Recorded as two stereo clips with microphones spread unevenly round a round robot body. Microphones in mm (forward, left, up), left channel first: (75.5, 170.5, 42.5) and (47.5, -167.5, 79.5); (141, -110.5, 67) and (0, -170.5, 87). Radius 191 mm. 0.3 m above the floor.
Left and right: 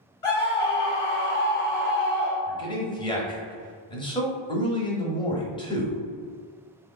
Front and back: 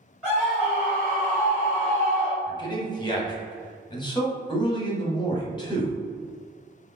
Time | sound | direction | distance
0.2 | a scream | 115° left | 1.5 m
2.5 | a man speaking | 30° left | 1.3 m